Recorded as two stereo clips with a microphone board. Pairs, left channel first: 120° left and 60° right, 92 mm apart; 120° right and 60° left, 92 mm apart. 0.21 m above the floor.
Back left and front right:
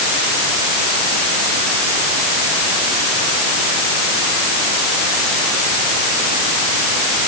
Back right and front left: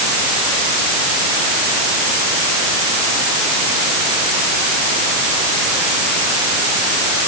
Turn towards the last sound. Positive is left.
No sound to turn to.